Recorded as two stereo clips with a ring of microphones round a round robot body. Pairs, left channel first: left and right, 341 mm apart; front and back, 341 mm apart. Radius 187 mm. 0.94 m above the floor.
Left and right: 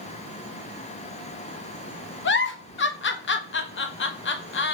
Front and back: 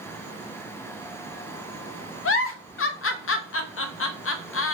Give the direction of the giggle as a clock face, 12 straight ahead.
11 o'clock.